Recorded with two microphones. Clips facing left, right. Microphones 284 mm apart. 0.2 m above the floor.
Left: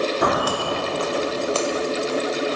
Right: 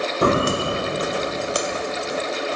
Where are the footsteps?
35° right (ahead or behind), 0.5 m; by 2.2 s 15° right (ahead or behind), 2.5 m.